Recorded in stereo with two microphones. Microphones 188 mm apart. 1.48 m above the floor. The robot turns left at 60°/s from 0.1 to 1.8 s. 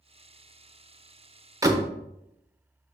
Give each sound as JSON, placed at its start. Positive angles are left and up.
{"t": 1.6, "sound": "a door slam", "side_deg": -15, "distance_m": 0.9}